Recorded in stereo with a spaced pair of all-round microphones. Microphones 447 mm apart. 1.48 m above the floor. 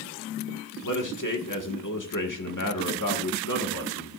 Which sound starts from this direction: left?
A man speaking, at 0.8 s.